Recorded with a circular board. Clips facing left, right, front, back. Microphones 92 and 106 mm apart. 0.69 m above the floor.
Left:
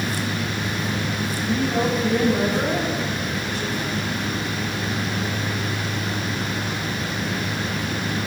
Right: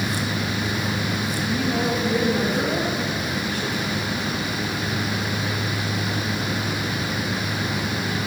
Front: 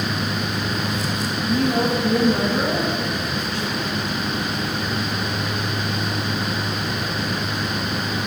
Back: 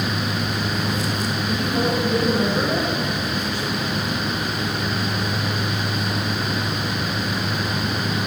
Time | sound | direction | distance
1.4 | a woman speaking | 5° left | 5 m